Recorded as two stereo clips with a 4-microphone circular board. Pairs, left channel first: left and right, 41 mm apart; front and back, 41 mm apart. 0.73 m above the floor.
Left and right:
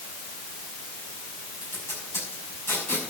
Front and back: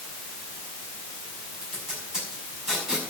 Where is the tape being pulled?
105° left, 5.5 m.